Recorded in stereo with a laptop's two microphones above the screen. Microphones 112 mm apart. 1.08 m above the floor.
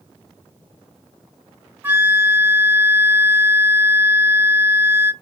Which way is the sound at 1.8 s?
15° right (ahead or behind).